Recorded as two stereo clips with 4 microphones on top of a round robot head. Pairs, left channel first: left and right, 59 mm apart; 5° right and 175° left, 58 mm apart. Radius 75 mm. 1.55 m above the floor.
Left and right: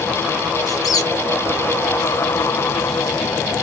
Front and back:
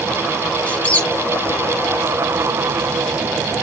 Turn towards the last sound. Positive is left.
turn(degrees=50)